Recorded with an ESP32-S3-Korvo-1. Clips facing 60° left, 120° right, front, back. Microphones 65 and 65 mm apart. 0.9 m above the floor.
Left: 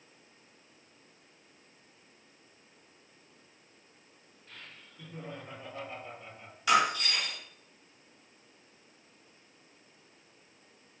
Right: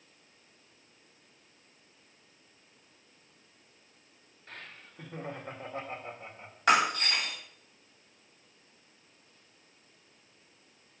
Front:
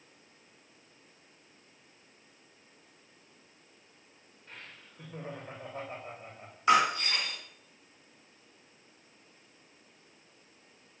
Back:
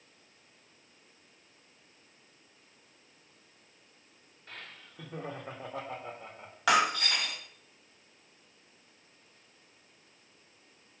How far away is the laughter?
About 2 m.